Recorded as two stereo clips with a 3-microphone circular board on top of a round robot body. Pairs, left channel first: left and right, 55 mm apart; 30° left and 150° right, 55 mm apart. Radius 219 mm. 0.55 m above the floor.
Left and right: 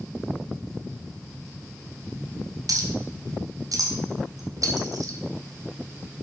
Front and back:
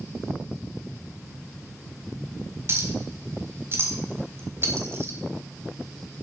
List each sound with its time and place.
2.7 s a clink: 105° right, 1.9 m